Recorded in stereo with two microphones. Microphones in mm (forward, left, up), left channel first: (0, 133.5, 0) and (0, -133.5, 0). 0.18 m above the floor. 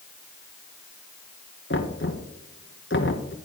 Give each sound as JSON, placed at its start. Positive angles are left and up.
{"t": 1.7, "sound": "knocking", "side_deg": 50, "distance_m": 1.6}